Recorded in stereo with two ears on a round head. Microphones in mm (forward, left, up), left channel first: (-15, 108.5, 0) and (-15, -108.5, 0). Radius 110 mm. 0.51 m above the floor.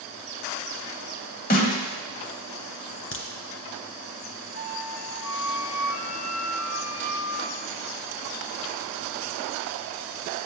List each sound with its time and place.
1.5 s a snare drum: 35° left (ahead or behind), 1.3 m
3.1 s a crack: 60° left (ahead or behind), 1.9 m
4.5 s a flute: 40° left (ahead or behind), 3 m